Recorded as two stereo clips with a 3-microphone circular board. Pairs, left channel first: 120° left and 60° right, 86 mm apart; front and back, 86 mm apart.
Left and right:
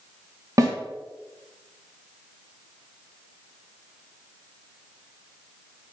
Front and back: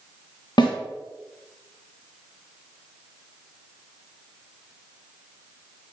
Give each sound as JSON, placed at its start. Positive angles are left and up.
{"t": 0.6, "sound": "a snare drum", "azimuth_deg": -20, "distance_m": 1.8}